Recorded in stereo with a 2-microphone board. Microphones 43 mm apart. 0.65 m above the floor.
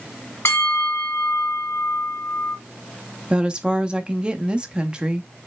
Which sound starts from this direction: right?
A woman speaking, at 3.3 s.